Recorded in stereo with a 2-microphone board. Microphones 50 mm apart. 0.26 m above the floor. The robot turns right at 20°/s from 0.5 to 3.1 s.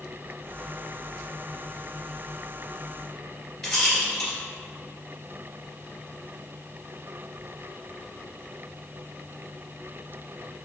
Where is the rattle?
5° left (ahead or behind), 1.8 m.